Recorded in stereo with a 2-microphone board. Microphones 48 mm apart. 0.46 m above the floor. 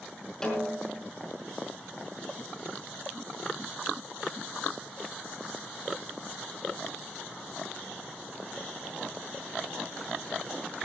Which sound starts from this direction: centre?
A snare drum, at 0.4 s.